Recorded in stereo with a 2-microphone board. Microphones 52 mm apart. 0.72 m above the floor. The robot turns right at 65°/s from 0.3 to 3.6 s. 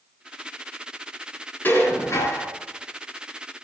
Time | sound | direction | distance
1.6 | dishes clattering | 40° left | 5.5 m